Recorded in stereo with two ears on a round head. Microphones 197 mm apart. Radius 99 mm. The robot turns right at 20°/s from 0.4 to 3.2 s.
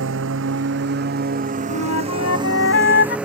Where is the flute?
80° left; by 3.2 s 50° left (ahead or behind).